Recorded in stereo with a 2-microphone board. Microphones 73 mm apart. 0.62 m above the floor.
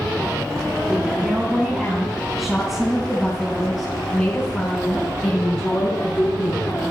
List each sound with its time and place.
0.9 s a woman speaking: 10° right (ahead or behind), 4.5 m; by 6.8 s 35° left (ahead or behind), 5 m